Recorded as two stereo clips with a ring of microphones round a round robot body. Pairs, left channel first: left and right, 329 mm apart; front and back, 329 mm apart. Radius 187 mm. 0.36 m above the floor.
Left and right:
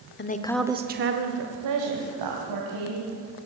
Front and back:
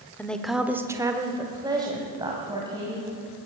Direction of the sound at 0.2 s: 80° left.